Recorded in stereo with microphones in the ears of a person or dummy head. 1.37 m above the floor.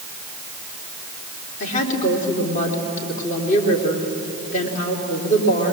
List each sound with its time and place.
1.6 s a woman speaking: 40° left (ahead or behind), 3.5 m